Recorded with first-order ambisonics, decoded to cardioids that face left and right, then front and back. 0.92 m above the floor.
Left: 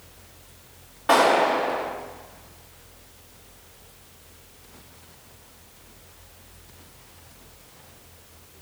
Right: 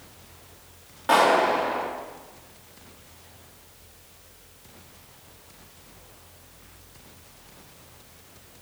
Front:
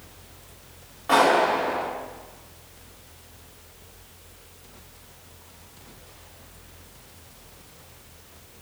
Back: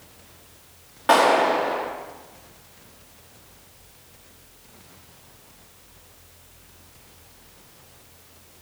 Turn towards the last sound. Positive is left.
turn(degrees=-175)